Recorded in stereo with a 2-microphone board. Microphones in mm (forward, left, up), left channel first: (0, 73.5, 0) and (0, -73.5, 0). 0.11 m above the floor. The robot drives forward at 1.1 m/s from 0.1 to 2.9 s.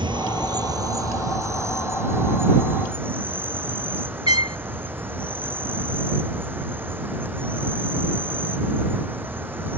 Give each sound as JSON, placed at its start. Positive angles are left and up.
{"t": 0.0, "sound": "an insect", "side_deg": -35}
{"t": 4.3, "sound": "a trumpet", "side_deg": 50}